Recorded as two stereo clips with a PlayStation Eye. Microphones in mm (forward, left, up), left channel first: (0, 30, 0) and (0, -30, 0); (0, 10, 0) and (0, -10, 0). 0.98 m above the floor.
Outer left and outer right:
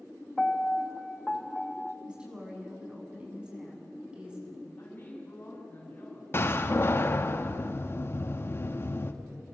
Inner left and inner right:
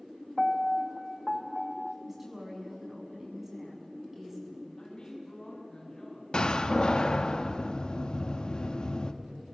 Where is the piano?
10° left (ahead or behind), 0.8 m.